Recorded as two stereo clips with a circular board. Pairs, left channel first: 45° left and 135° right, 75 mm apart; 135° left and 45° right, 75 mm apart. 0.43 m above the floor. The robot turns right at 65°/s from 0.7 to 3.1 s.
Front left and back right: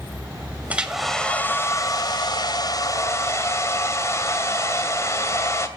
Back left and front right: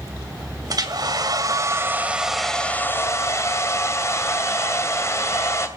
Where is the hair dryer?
65° right, 2 m; by 5.7 s 90° left, 2 m.